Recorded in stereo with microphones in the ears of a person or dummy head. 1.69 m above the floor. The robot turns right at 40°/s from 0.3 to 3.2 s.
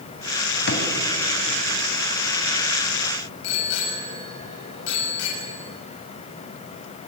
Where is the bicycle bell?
65° left (ahead or behind), 8 m.